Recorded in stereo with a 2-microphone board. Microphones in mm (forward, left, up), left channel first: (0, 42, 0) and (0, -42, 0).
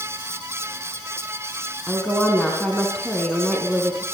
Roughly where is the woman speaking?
Centre.